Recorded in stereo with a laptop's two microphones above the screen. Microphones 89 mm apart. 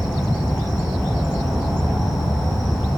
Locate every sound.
0.0 s an insect: centre (ahead or behind), 2.5 m